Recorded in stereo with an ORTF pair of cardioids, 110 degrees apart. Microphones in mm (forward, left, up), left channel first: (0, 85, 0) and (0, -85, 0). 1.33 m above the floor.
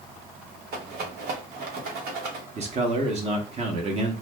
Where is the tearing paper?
No tearing paper in this recording.